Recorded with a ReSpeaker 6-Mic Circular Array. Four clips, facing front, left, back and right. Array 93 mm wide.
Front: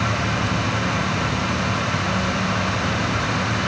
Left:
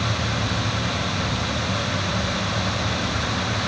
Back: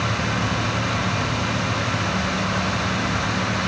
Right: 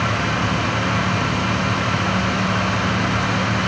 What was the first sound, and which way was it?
Only background noise.